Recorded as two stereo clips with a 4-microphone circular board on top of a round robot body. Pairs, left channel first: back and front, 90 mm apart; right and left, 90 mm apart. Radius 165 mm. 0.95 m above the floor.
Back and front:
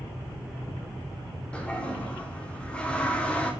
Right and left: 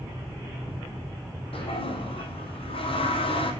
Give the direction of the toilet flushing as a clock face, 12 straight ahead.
3 o'clock.